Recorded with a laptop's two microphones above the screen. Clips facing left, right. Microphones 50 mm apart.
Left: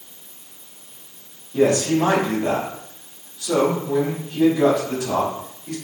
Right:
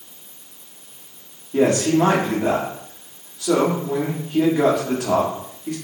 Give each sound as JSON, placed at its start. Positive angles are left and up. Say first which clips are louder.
{"t": 1.5, "sound": "a man speaking", "louder": "right 1 dB", "side_deg": -65, "distance_m": 1.6}